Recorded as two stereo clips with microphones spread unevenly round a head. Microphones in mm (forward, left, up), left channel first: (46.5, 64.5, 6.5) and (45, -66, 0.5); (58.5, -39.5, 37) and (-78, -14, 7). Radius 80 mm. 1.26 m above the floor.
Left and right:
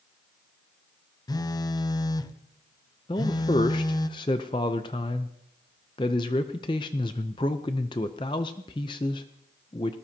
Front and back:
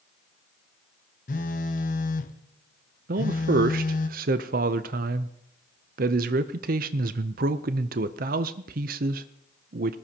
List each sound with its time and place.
1.3 s a phone buzzing: 30° left, 0.7 m
3.1 s a man speaking: 155° left, 0.6 m